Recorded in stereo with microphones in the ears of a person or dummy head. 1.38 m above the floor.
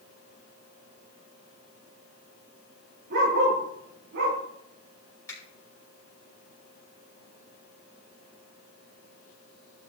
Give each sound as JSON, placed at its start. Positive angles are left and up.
{"t": 3.1, "sound": "a dog barking", "side_deg": -50, "distance_m": 5.0}
{"t": 5.3, "sound": "a finger snap", "side_deg": 15, "distance_m": 5.5}